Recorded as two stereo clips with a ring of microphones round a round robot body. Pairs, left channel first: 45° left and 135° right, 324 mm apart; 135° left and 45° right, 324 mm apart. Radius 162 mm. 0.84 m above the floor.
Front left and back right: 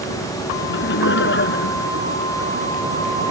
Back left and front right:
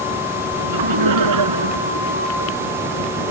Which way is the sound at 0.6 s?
15° right.